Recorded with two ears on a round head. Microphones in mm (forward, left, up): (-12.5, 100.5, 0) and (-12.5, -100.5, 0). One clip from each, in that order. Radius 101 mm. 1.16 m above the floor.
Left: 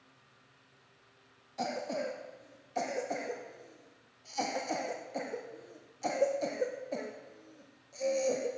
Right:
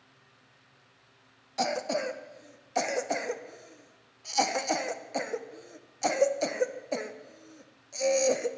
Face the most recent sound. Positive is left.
turn(degrees=-45)  # may be behind; listen again after turning